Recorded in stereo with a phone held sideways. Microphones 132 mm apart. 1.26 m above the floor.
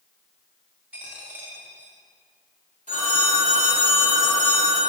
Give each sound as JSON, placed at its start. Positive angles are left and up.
{"t": 0.9, "sound": "a dropped coin", "side_deg": -10, "distance_m": 2.5}
{"t": 2.9, "sound": "a phone ringing", "side_deg": -70, "distance_m": 2.0}